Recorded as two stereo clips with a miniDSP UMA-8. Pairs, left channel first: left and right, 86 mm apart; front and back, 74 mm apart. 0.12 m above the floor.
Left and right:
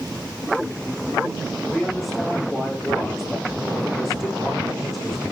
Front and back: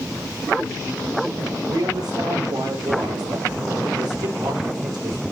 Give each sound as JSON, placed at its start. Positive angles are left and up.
{"t": 1.7, "sound": "a man speaking", "azimuth_deg": 180, "distance_m": 7.5}